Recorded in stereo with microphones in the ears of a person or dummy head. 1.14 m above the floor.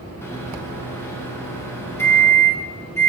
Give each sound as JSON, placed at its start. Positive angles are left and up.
{"t": 0.2, "sound": "a microwave", "side_deg": 15, "distance_m": 0.9}